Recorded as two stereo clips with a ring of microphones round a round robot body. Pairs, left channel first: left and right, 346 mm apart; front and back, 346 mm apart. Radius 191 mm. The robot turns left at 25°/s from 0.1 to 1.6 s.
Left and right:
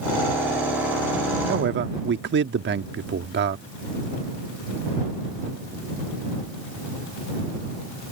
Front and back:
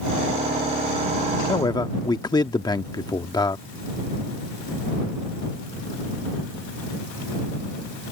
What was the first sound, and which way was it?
A man speaking, 65° right.